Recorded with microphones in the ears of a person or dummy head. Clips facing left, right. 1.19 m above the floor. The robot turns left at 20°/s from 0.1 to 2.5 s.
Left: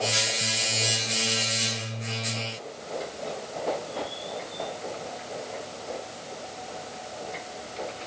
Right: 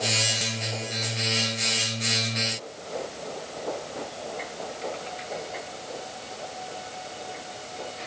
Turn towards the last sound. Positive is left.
No sound to turn to.